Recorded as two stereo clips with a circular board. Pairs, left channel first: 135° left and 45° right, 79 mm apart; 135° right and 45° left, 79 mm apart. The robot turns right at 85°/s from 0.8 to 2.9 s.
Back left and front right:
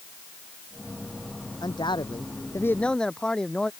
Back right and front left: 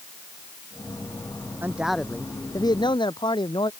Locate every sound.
1.6 s a man speaking: 105° left; by 3.7 s 145° right